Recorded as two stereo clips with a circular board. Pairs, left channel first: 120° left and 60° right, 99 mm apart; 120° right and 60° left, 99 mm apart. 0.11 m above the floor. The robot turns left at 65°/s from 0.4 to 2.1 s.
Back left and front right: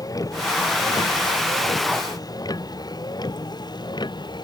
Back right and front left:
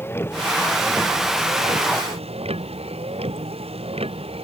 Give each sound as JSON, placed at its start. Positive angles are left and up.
{"t": 0.0, "sound": "a vehicle", "azimuth_deg": 175}